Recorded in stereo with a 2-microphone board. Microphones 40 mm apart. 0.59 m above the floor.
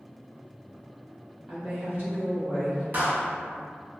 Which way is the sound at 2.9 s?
45° right (ahead or behind).